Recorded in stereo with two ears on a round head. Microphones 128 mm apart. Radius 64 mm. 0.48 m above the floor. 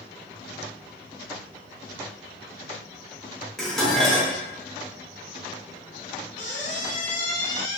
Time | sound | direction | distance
3.6 | dishes clattering | 5° left (ahead or behind) | 0.9 m
6.4 | a squeak | 50° left (ahead or behind) | 1.0 m